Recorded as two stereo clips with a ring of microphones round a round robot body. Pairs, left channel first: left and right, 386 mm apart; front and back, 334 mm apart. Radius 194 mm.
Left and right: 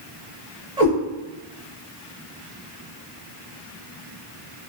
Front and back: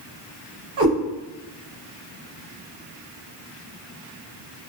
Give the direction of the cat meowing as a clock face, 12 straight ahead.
6 o'clock.